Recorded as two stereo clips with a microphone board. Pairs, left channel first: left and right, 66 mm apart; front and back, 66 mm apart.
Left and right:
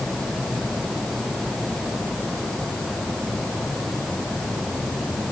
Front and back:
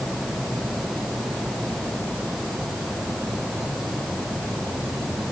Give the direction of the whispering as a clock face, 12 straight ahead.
No whispering in this recording.